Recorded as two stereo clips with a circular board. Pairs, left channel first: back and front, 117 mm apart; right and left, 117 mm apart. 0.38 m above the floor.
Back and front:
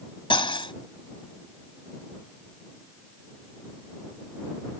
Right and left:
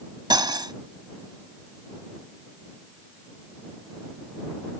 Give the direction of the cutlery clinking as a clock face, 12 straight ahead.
7 o'clock.